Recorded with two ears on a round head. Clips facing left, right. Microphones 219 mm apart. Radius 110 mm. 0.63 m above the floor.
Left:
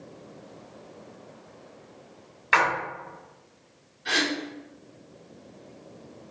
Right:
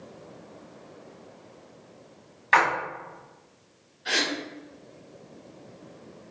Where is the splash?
10° left (ahead or behind), 1.6 m.